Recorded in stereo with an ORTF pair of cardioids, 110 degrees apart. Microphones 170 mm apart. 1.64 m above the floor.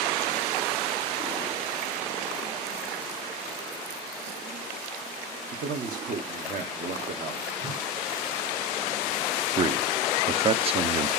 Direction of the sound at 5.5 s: 50° right.